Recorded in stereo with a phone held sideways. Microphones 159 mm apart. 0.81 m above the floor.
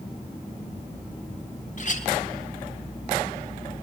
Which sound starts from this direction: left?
A clink, at 1.8 s.